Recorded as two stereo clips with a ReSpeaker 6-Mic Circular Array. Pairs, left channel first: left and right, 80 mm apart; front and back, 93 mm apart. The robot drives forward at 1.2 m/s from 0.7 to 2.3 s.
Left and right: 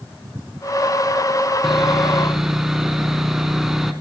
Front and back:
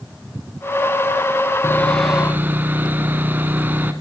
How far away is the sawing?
About 1.0 m.